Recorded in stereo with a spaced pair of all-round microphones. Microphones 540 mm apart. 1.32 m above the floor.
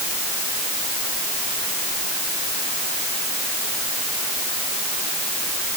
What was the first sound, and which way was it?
Only background noise.